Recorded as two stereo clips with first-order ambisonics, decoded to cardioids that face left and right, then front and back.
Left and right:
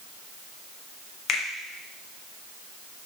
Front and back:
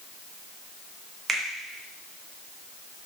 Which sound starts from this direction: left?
A finger snap, at 1.3 s.